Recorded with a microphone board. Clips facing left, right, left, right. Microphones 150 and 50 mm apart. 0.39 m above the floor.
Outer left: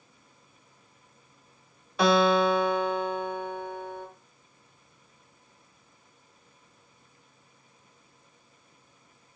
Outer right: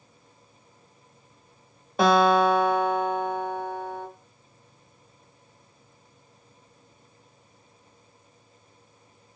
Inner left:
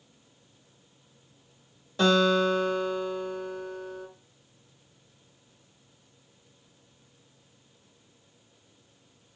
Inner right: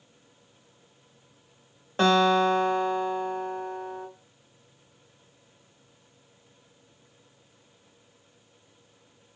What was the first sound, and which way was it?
A guitar, 45° right (ahead or behind).